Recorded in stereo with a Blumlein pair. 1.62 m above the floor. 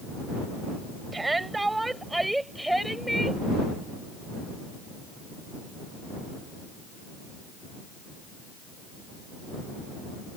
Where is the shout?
10° right; by 3.4 s straight ahead.